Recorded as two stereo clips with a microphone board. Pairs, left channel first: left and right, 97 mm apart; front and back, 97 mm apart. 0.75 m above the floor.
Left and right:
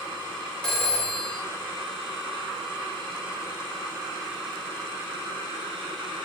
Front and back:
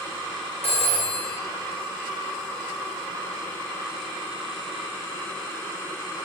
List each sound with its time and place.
0.6 s a phone ringing: 10° left, 0.9 m